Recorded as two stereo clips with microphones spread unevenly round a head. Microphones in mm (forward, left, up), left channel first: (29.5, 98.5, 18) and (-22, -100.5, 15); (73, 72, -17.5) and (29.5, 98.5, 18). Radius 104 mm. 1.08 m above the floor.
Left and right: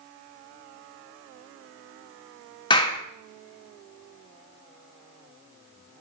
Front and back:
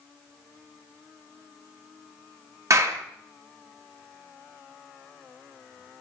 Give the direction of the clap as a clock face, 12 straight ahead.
7 o'clock.